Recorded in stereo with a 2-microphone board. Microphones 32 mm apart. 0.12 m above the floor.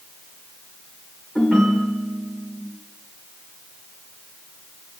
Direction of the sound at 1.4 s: 15° left (ahead or behind).